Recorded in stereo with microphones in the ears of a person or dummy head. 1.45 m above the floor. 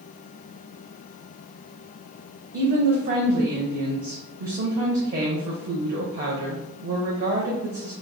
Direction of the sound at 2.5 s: 45° right (ahead or behind).